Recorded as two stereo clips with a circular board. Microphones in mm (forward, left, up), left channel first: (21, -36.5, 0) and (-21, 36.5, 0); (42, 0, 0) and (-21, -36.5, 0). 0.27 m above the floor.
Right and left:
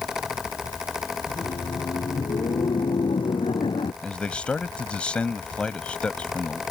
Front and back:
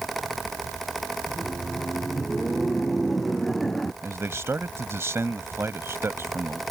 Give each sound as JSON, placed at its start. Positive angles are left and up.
{"t": 1.3, "sound": "laughter", "azimuth_deg": -60}
{"t": 4.0, "sound": "a man speaking", "azimuth_deg": -130}